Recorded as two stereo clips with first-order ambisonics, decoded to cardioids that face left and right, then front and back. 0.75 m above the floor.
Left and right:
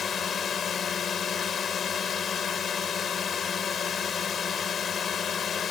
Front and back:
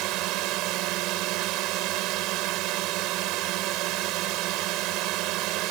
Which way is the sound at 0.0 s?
155° left.